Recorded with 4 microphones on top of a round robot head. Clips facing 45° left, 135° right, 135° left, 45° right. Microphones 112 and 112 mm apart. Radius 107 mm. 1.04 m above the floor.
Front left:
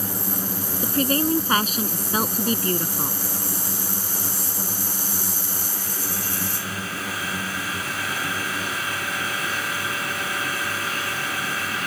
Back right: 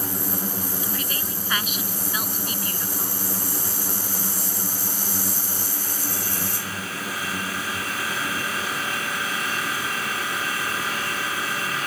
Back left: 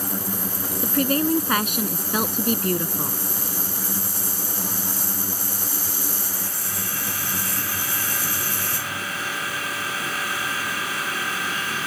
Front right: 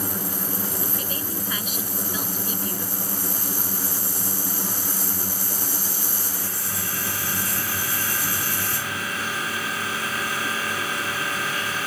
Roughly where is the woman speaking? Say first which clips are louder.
Front left 10 dB, back left 11 dB; left.